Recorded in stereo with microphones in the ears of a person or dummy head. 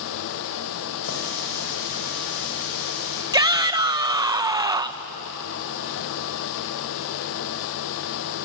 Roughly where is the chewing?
No chewing in this recording.